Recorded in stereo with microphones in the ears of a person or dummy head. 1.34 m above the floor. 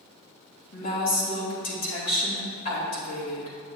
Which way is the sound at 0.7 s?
45° left (ahead or behind).